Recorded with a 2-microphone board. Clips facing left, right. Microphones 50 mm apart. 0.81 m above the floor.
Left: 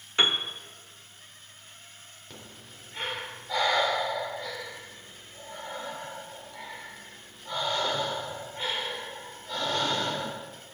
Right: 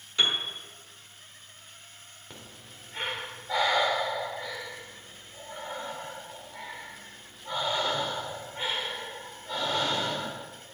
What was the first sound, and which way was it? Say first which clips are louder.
A piano: left 2 dB; 35° left (ahead or behind).